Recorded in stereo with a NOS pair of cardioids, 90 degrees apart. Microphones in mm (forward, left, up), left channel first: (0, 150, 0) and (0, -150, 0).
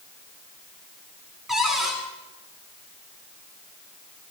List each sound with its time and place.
1.5 s a cupboard door: straight ahead, 9 m